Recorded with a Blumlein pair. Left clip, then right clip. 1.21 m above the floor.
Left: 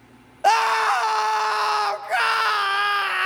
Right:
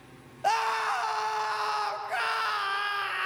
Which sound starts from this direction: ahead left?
A scream, at 0.4 s.